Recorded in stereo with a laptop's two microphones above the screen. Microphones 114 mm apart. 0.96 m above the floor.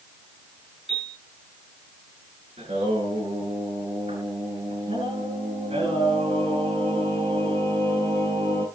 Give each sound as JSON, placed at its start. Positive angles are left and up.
{"t": 0.9, "sound": "a piano", "side_deg": -60, "distance_m": 7.5}
{"t": 2.6, "sound": "singing", "side_deg": -60, "distance_m": 9.5}